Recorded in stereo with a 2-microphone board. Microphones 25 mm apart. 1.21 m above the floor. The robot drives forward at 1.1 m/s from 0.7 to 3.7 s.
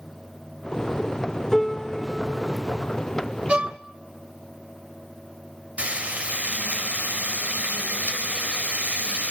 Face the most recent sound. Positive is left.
turn(degrees=-80)